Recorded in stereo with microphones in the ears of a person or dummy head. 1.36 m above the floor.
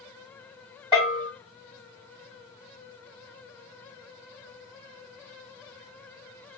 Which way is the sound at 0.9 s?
20° left (ahead or behind).